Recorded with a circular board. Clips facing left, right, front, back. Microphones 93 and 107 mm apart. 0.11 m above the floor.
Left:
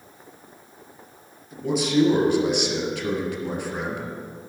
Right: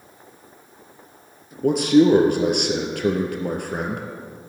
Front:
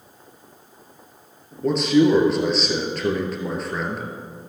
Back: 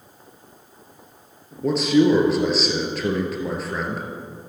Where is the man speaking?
90° right, 1.9 m.